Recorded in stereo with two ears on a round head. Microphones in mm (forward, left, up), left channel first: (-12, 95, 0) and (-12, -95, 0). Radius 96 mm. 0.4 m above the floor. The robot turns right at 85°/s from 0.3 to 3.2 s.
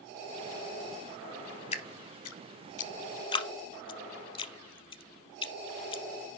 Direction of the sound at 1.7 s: 30° left (ahead or behind).